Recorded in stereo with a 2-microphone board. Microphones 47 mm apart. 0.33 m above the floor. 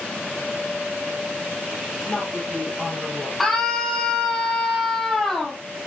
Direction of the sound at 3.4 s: Centre (ahead or behind).